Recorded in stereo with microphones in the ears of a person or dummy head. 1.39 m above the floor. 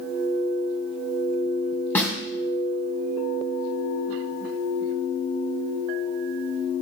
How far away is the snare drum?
About 2.0 m.